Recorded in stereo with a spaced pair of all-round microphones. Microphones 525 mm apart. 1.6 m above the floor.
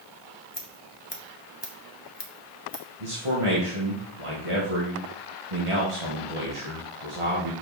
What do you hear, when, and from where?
0.5 s scissors: 50° left (ahead or behind), 1.6 m
3.0 s a man speaking: 75° right (ahead or behind), 2 m